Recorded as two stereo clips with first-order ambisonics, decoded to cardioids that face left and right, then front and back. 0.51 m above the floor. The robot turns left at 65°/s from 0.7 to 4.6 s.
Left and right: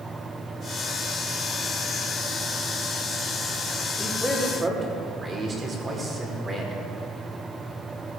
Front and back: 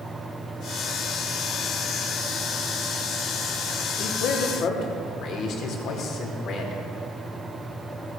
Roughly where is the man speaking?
Ahead.